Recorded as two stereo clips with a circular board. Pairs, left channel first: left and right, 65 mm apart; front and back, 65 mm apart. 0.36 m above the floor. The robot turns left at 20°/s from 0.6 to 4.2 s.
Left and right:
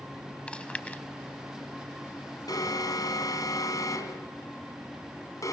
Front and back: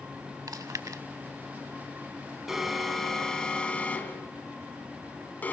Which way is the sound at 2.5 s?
95° left.